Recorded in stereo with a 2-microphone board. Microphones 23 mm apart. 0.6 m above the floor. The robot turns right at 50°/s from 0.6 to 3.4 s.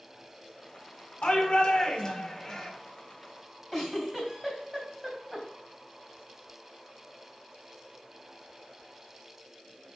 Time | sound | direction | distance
1.2 | a shout | 105° left | 1.9 m
3.7 | a giggle | 10° right (ahead or behind) | 3.5 m